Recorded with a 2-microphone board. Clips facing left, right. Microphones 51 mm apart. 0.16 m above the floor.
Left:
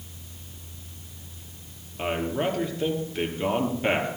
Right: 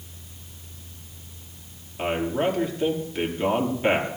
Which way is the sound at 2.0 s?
Centre (ahead or behind).